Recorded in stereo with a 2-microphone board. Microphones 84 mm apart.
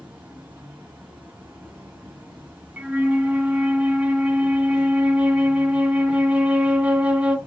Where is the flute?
15° right (ahead or behind), 0.7 m.